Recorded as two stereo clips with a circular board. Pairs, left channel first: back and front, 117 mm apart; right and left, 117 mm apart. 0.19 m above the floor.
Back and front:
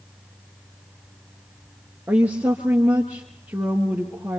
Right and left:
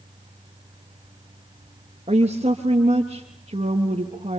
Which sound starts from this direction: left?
A woman speaking, at 2.1 s.